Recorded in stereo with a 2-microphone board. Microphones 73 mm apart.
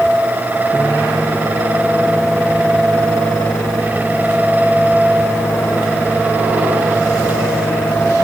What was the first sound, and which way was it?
A microwave, 20° left (ahead or behind).